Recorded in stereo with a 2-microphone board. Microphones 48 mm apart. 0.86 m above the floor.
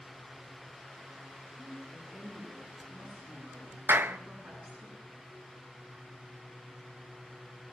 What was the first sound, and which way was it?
A woman speaking, 35° right (ahead or behind).